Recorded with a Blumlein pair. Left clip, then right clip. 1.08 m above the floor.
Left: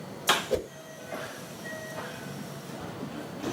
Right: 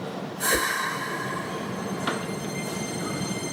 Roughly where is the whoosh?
Ahead.